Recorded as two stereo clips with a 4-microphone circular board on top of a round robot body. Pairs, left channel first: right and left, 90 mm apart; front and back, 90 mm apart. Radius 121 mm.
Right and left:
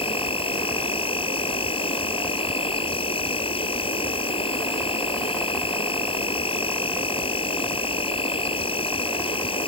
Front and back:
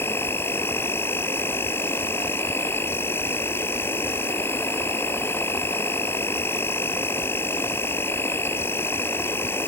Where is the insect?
70° right.